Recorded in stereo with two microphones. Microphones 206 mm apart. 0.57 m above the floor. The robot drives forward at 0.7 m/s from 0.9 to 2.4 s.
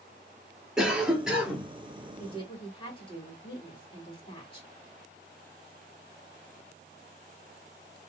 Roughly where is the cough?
Centre.